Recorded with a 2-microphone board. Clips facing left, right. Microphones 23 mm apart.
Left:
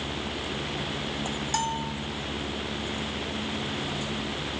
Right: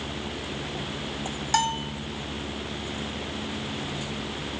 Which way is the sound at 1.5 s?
30° right (ahead or behind).